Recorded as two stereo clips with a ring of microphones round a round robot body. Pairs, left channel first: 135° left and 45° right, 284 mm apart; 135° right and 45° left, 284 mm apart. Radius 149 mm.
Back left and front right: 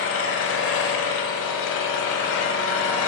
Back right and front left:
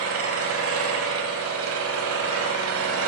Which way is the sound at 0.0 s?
90° left.